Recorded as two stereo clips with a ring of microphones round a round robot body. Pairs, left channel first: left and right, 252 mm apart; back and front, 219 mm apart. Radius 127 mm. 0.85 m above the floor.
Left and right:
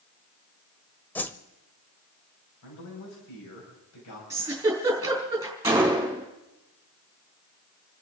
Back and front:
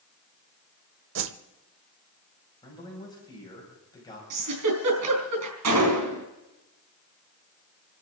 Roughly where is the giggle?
Ahead.